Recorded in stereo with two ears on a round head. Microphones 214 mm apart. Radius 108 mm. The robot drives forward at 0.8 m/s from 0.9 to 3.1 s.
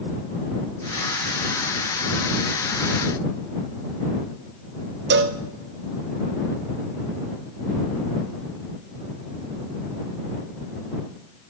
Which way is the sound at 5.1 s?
45° right (ahead or behind).